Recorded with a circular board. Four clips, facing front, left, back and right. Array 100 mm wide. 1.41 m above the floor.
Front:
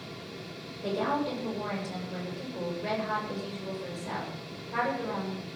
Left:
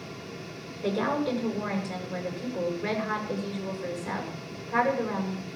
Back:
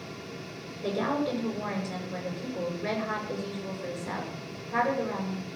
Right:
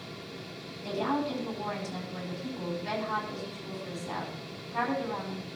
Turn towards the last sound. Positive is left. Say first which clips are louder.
# left 3 dB, back 1 dB
turn(degrees=85)